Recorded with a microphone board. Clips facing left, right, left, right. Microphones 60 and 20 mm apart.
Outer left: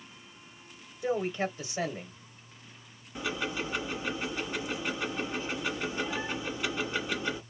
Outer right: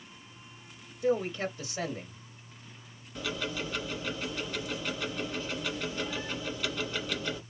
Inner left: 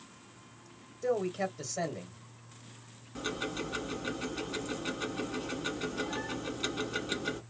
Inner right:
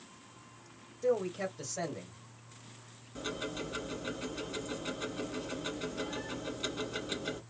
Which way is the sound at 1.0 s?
10° left (ahead or behind).